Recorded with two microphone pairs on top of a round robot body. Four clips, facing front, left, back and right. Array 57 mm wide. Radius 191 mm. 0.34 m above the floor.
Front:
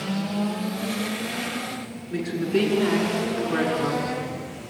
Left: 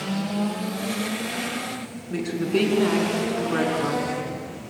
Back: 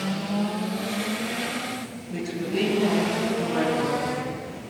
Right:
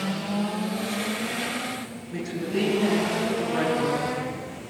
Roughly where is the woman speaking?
Left.